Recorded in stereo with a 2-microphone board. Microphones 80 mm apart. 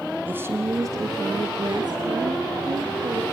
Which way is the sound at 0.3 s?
20° right (ahead or behind).